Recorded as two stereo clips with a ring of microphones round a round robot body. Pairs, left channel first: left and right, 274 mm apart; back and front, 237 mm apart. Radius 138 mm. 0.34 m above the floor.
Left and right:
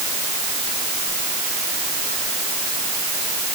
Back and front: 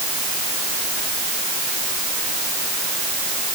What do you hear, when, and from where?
Only background noise.